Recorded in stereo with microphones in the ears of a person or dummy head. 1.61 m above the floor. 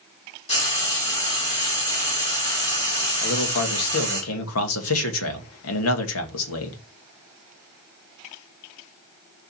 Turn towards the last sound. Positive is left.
turn(degrees=85)